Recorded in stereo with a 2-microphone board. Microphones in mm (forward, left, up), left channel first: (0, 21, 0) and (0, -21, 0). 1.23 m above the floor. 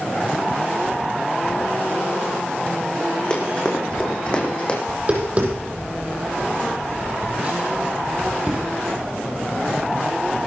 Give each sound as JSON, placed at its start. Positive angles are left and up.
{"t": 3.3, "sound": "running footsteps", "side_deg": 25, "distance_m": 5.5}
{"t": 4.9, "sound": "tapping", "side_deg": -35, "distance_m": 7.5}